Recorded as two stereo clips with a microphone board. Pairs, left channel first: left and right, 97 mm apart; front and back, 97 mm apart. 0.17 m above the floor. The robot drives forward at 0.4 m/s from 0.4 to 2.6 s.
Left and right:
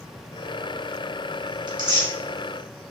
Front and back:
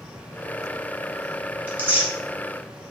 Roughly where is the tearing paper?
Behind right.